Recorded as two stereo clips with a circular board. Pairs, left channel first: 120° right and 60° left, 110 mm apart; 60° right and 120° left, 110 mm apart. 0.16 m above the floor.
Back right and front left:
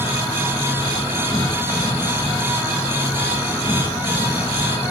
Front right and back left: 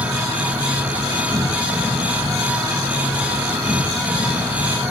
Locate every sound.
0.0 s an insect: 175° right, 4.5 m